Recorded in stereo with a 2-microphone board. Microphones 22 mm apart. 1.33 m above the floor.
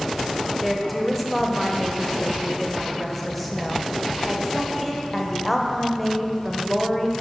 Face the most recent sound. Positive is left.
turn(degrees=5)  # may be behind; listen again after turning